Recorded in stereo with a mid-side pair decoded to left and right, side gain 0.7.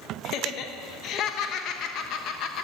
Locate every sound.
0.2 s laughter: 55° left, 1.1 m